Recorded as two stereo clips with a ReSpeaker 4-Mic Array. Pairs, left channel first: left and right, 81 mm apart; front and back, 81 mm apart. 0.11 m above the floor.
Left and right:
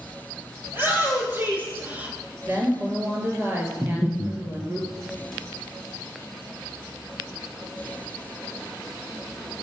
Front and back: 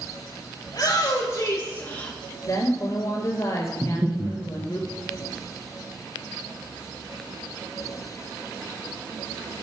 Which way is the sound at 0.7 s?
35° right.